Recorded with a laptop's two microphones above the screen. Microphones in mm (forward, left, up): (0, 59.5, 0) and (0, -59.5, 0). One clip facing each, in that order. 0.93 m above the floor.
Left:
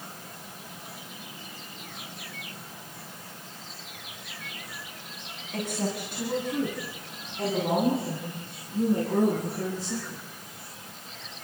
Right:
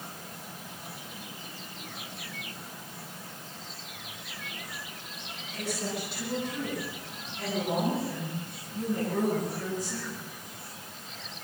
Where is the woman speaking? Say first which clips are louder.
Left 3 dB; 50° left (ahead or behind), 9 m; by 10.2 s 30° left (ahead or behind), 13 m.